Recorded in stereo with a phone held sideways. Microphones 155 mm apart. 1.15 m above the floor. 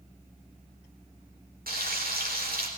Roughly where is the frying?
Right.